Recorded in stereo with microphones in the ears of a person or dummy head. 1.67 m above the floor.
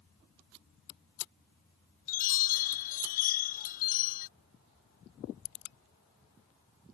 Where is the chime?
45° left (ahead or behind).